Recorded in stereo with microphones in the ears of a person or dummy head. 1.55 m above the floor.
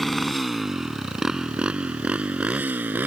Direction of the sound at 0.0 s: Centre (ahead or behind).